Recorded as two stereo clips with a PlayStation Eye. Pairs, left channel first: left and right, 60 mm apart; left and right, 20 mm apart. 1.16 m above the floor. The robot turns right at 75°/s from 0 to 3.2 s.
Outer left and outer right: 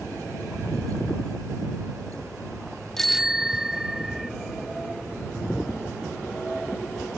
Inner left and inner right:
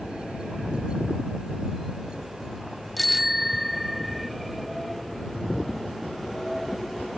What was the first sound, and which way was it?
A bicycle bell, 10° left (ahead or behind).